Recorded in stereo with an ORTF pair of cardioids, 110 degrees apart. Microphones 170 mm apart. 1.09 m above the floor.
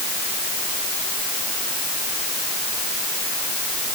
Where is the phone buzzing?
I don't hear a phone buzzing.